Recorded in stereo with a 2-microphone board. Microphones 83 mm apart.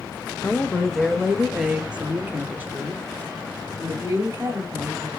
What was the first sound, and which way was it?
A woman speaking, 15° left (ahead or behind).